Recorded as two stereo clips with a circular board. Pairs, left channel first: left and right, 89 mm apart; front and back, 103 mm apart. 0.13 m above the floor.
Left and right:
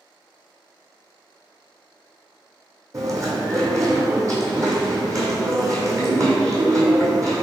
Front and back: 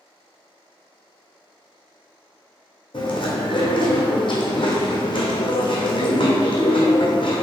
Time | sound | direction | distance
2.9 | chewing | 35° right | 1.2 m